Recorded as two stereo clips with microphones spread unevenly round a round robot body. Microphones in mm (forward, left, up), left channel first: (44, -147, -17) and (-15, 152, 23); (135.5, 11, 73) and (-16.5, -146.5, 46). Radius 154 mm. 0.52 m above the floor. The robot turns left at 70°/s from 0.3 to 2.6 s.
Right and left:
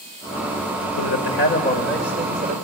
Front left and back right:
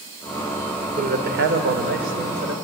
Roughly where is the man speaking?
Right.